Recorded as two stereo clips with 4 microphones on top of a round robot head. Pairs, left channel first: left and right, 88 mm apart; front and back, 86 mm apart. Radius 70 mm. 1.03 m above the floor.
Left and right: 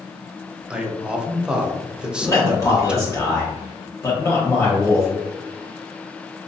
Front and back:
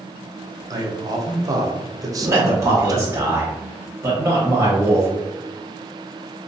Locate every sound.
0.7 s a man speaking: 165° right, 0.6 m
2.2 s a man speaking: 135° left, 0.9 m